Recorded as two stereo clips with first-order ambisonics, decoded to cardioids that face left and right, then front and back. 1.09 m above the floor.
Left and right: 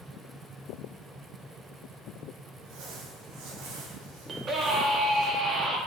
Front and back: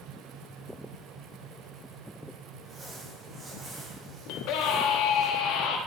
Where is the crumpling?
115° right, 3 m.